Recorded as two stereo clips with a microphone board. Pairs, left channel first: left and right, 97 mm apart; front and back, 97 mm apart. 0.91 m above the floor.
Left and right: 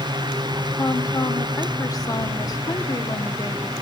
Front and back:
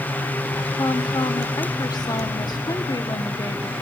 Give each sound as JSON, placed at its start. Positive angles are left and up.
{"t": 0.8, "sound": "a woman speaking", "azimuth_deg": 40, "distance_m": 1.8}